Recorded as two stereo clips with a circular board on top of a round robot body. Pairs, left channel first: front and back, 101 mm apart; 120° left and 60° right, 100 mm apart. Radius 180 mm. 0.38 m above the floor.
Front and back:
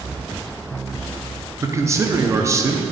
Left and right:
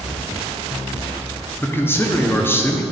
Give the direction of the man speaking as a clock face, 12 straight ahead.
7 o'clock.